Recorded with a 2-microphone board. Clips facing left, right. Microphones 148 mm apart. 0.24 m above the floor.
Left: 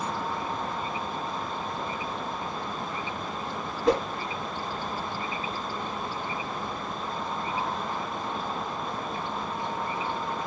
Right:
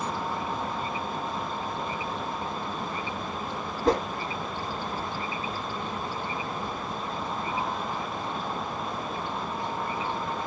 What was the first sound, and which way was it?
A whoosh, 35° right (ahead or behind).